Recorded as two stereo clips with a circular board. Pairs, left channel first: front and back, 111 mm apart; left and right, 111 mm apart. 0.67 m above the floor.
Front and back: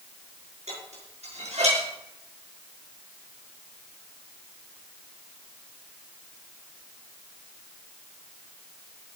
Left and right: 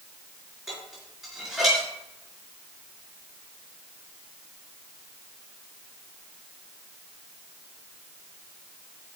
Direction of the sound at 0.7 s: 175° right.